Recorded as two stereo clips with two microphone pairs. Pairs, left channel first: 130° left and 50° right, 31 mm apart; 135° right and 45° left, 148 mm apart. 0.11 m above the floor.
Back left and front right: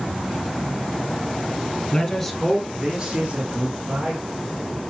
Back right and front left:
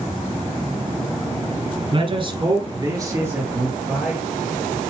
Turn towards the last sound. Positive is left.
turn(degrees=-35)